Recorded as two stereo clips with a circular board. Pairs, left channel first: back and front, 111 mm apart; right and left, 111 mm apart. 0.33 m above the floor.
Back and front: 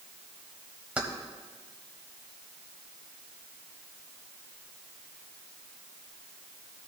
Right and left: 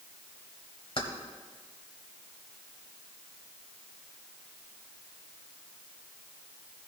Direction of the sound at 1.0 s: 75° right.